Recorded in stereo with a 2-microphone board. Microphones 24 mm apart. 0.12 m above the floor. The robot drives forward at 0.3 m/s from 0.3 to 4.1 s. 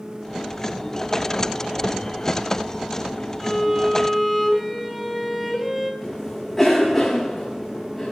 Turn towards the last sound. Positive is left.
turn(degrees=10)  # may be behind; listen again after turning